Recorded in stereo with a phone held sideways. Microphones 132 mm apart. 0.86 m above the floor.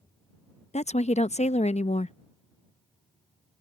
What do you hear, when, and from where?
0.7 s a woman speaking: 55° left (ahead or behind)